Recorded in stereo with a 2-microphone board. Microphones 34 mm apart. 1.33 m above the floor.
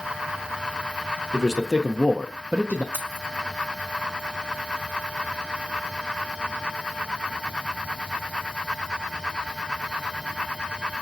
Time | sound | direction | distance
1.3 | a man speaking | 5° right (ahead or behind) | 1.0 m
2.9 | keys jangling | 70° right (ahead or behind) | 1.3 m